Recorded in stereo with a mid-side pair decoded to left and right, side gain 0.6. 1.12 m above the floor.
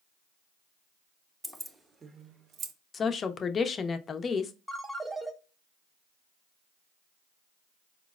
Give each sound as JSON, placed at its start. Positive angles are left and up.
{"t": 1.4, "sound": "keys jangling", "azimuth_deg": 0, "distance_m": 0.8}
{"t": 2.9, "sound": "a woman speaking", "azimuth_deg": 35, "distance_m": 0.6}
{"t": 4.7, "sound": "a ringtone", "azimuth_deg": -10, "distance_m": 1.0}